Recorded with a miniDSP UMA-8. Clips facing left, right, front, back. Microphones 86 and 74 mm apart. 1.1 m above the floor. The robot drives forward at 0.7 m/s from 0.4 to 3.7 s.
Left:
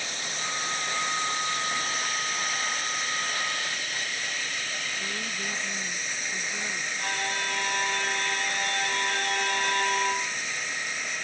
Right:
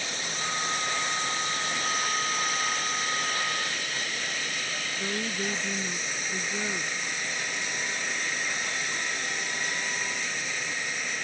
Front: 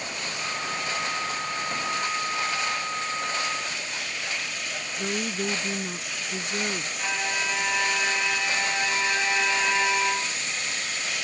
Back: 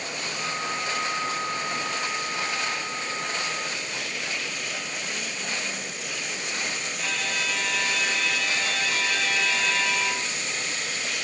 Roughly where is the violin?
Left.